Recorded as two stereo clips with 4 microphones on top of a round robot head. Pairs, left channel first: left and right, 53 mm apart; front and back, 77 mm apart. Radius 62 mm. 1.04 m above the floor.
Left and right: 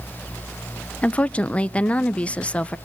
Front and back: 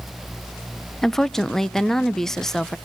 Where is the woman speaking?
75° left, 0.7 m.